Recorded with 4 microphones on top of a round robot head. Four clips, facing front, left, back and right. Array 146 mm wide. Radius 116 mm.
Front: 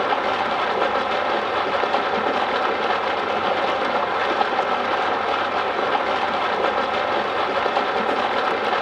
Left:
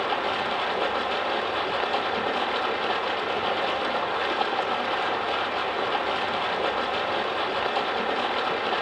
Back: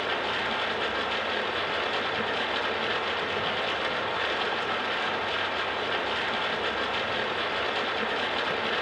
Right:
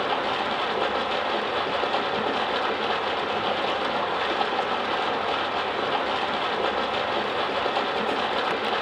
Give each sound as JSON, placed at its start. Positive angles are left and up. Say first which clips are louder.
{"t": 0.0, "sound": "running water", "louder": "right 1 dB, front 9 dB", "azimuth_deg": -5, "distance_m": 1.1}